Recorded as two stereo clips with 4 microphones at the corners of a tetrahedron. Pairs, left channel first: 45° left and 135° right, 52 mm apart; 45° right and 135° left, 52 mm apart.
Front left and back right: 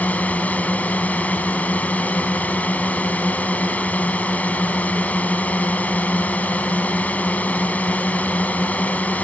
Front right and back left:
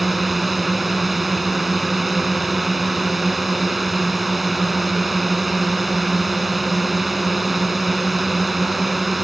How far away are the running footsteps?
No running footsteps in this recording.